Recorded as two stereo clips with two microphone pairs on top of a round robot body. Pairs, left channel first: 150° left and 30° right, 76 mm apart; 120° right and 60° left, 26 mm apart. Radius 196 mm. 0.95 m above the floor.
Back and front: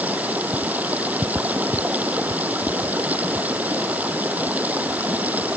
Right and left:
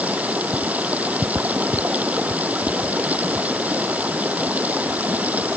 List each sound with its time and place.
0.0 s running water: 40° left